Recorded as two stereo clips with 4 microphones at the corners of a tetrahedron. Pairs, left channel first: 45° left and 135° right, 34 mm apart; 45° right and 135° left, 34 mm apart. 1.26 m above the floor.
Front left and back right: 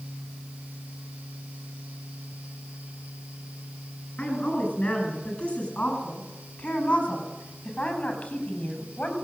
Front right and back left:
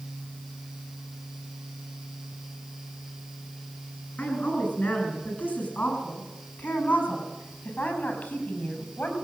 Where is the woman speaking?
10° right, 9.5 m; by 9.2 s 15° right, 7 m.